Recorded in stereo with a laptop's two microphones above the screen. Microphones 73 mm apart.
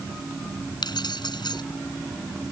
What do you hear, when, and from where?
0.8 s keys jangling: 90° left